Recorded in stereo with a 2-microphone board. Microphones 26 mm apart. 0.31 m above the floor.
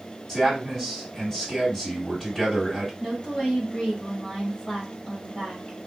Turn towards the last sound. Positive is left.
turn(degrees=40)  # may be behind; listen again after turning